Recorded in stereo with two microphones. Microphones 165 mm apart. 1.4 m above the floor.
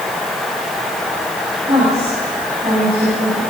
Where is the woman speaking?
40° right (ahead or behind), 8.5 m.